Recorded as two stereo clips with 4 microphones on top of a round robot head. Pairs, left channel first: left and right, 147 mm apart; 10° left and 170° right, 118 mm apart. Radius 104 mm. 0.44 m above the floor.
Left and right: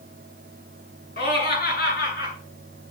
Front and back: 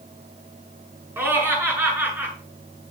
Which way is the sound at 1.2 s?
120° left.